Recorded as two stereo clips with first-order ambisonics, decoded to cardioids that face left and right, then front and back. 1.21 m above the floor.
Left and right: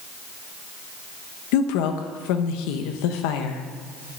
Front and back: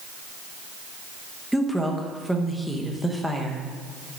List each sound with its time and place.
1.5 s a woman speaking: 90° left, 1.1 m